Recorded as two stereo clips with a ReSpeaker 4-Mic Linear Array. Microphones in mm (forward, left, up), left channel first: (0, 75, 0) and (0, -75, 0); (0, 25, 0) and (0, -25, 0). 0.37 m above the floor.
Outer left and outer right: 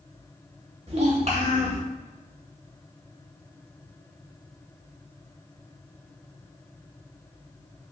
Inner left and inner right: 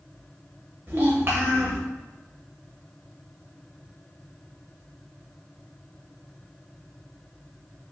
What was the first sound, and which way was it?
A child speaking, 45° right (ahead or behind).